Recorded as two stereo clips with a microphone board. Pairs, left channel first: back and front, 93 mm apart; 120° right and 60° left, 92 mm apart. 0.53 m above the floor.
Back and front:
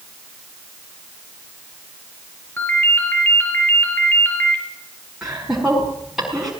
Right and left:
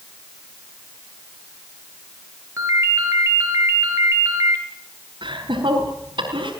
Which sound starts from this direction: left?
Laughter, at 5.2 s.